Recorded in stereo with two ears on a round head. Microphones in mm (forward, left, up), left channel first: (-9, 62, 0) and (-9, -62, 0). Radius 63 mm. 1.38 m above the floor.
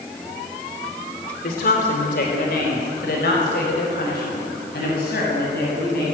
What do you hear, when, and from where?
1.4 s a woman speaking: 75° left (ahead or behind), 3.5 m; by 6.0 s 85° left, 9.5 m